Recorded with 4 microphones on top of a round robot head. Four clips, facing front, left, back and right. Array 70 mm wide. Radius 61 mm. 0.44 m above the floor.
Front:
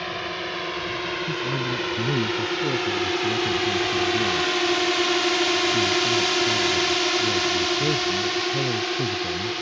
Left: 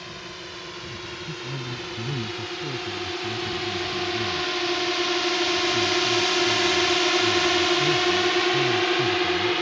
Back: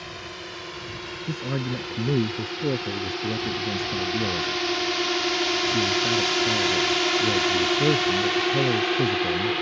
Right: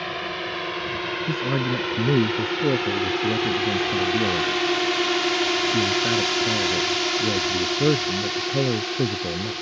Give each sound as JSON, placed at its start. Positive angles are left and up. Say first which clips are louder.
{"t": 0.0, "sound": "a drone", "louder": "right 9 dB, front 8 dB", "azimuth_deg": -50}
{"t": 1.3, "sound": "a man speaking", "louder": "right 11 dB, back 2 dB", "azimuth_deg": -105}